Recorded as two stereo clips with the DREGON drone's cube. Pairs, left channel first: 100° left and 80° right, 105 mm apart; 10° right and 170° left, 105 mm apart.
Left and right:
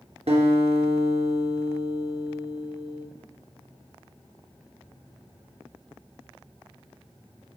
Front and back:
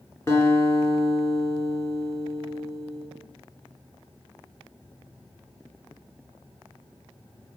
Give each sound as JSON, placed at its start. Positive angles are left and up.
{"t": 0.3, "sound": "a guitar", "azimuth_deg": -75, "distance_m": 2.5}